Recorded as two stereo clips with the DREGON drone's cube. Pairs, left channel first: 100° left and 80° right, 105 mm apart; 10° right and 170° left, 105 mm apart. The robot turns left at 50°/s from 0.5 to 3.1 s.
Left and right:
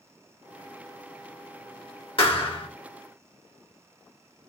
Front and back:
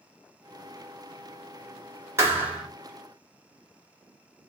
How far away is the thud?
About 1.9 m.